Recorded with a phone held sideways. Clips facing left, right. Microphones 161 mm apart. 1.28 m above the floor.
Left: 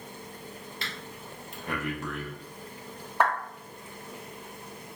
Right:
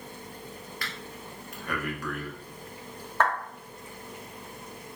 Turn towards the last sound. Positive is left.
turn(degrees=10)  # may be behind; listen again after turning